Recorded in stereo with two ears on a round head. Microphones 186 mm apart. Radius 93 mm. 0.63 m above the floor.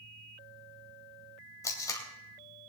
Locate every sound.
1.6 s tape being pulled: 15° left (ahead or behind), 2.5 m